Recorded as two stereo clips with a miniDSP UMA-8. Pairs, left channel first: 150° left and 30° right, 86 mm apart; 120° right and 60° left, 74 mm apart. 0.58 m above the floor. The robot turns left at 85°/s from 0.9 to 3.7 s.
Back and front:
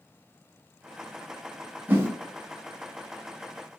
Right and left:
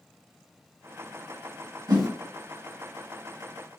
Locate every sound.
1.9 s a whoosh: 40° left, 0.9 m; by 2.1 s 20° left, 0.9 m